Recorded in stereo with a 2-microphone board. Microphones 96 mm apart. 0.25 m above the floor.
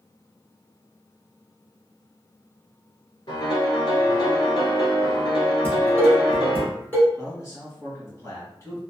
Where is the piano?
50° left (ahead or behind), 1.1 m.